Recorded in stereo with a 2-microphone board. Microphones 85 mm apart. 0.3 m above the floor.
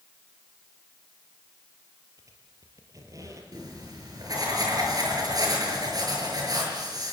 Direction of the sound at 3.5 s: 50° right (ahead or behind).